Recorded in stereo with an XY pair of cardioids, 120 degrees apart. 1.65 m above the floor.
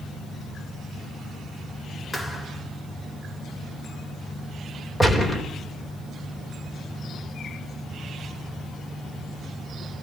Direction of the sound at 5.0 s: 15° left.